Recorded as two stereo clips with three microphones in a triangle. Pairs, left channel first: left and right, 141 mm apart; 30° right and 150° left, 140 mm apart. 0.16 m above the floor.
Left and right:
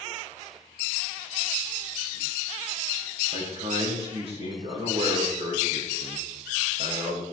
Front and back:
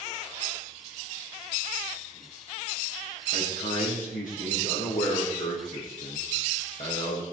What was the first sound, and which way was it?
A man speaking, 45° right.